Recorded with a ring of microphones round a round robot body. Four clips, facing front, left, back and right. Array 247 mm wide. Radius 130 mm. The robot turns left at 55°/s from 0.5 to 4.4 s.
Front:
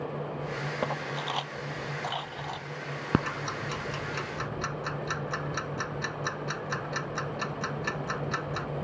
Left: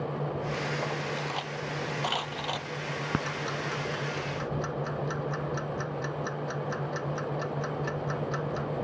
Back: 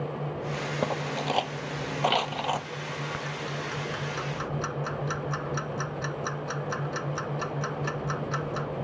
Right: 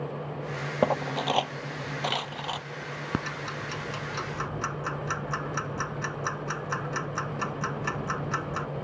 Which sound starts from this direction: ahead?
Ticking, at 3.1 s.